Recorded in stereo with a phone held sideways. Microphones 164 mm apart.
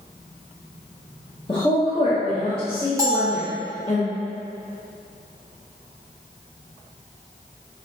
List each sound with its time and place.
1.5 s a woman speaking: 30° left (ahead or behind), 1.0 m
3.0 s a bell: 20° right (ahead or behind), 1.1 m